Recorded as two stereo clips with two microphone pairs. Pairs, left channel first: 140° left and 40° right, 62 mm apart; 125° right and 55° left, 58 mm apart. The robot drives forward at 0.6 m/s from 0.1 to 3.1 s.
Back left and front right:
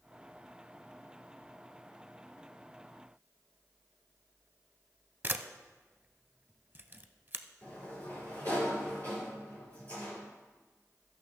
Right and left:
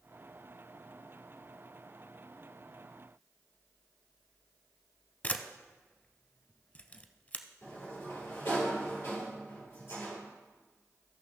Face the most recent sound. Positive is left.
turn(degrees=-155)